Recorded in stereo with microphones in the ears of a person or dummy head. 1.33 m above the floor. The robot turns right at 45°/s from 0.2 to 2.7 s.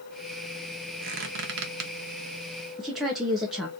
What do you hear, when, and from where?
1.0 s a squeak: 55° right (ahead or behind), 0.9 m
2.8 s a woman speaking: centre (ahead or behind), 0.8 m